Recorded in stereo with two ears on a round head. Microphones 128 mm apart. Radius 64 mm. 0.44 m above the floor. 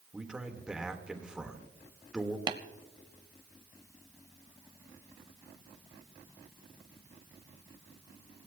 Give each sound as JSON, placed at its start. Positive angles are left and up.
{"t": 0.1, "sound": "a man speaking", "side_deg": -5, "distance_m": 1.3}
{"t": 2.5, "sound": "tapping", "side_deg": -30, "distance_m": 0.8}